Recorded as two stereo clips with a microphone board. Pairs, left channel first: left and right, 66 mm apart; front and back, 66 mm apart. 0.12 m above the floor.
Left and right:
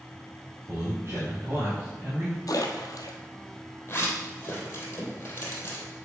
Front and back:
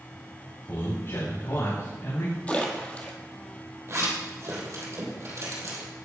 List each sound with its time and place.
0.7 s a man speaking: 45° right, 3.5 m; by 2.4 s 30° right, 4.5 m
2.5 s a splash: 65° left, 1.2 m
3.9 s a zipper: 145° left, 2.5 m